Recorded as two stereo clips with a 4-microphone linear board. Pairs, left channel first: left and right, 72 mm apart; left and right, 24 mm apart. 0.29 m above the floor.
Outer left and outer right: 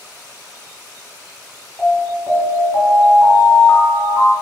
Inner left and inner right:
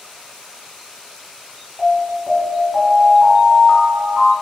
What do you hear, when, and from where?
1.8 s an alarm: 25° left (ahead or behind), 1.2 m